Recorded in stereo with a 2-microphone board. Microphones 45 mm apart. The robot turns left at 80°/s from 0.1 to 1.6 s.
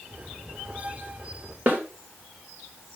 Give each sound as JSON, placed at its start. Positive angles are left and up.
{"t": 1.7, "sound": "a snare drum", "side_deg": -45, "distance_m": 3.0}